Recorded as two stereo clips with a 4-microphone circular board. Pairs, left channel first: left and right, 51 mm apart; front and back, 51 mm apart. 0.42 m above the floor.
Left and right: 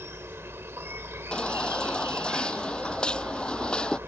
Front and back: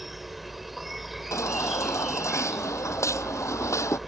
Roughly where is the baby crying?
Ahead.